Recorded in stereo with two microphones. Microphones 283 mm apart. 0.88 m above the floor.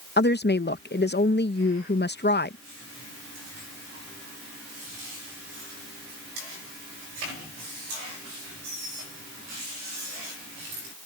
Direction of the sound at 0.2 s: 35° left (ahead or behind).